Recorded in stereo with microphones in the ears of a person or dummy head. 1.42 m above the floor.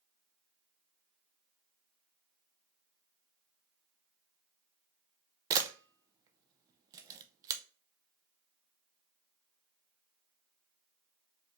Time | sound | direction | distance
5.5 | a camera shutter | 25° right (ahead or behind) | 0.6 m